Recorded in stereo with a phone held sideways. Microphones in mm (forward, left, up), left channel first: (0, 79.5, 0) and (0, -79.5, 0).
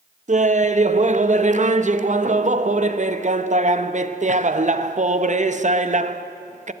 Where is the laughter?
50° right (ahead or behind), 0.6 m.